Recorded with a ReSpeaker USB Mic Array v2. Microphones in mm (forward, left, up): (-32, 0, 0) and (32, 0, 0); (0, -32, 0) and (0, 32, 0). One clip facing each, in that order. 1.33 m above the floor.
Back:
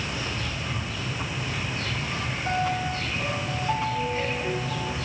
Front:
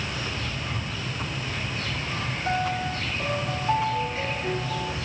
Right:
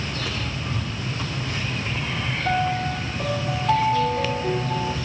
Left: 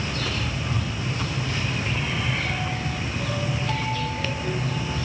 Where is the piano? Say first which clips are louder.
Even, right 6 dB; 80° right, 2.5 m.